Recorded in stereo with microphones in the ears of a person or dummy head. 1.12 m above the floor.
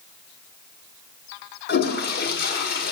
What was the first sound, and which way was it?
A toilet flushing, 55° left (ahead or behind).